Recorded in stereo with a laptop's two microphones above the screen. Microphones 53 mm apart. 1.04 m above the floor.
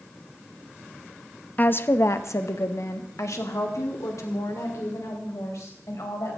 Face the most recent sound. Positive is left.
turn(degrees=85)